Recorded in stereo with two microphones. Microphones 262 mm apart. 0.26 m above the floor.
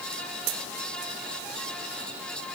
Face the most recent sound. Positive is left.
No sound to turn to.